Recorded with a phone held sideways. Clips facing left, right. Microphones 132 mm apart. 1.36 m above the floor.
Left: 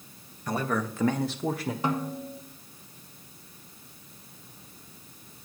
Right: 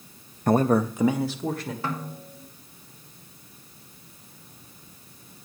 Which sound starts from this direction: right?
A man speaking, at 0.5 s.